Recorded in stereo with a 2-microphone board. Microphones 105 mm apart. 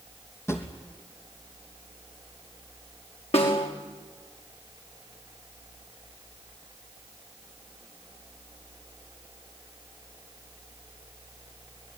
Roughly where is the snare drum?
Left.